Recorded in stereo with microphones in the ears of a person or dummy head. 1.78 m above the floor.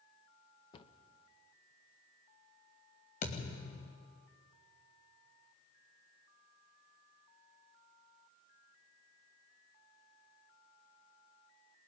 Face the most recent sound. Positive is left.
turn(degrees=45)  # may be behind; listen again after turning